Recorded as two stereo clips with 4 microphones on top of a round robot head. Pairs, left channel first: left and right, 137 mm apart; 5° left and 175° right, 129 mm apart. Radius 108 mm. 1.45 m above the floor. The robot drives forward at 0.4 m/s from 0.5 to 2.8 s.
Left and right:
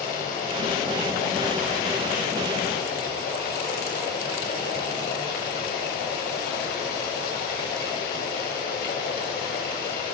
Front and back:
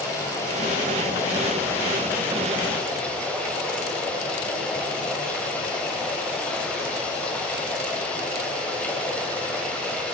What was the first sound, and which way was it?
Running water, 70° left.